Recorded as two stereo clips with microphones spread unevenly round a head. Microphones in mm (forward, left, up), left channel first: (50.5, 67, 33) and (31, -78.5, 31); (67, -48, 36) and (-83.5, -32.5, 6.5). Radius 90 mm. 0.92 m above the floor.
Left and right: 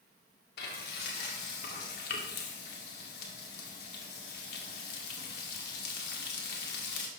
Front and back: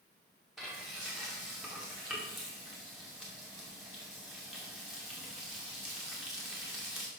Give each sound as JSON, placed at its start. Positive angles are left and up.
{"t": 0.6, "sound": "frying", "azimuth_deg": 85, "distance_m": 2.0}